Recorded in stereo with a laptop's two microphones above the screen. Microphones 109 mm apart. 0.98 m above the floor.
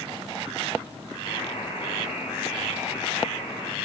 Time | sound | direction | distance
1.2 | a buzzer | 55° left (ahead or behind) | 3 m